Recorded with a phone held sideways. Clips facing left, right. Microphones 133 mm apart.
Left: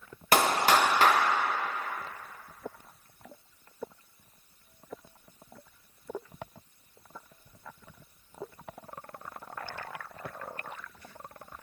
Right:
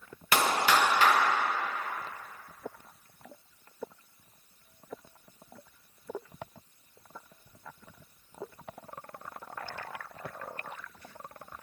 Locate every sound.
0.3 s a clap: 45° left (ahead or behind), 0.8 m